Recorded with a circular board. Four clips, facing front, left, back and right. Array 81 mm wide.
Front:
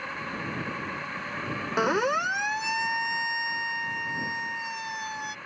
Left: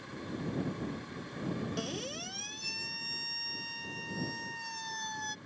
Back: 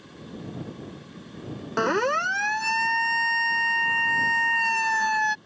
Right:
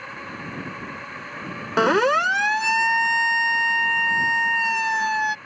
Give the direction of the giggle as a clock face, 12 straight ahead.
No giggle in this recording.